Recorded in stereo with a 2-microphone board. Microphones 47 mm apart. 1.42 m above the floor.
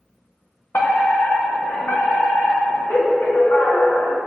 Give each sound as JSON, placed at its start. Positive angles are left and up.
{"t": 0.7, "sound": "a fire alarm", "side_deg": 50, "distance_m": 2.5}